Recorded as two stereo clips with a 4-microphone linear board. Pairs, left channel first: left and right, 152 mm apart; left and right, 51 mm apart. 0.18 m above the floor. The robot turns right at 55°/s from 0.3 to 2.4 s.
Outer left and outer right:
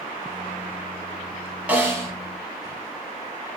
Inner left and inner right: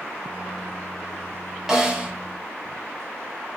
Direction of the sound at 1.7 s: 10° right (ahead or behind).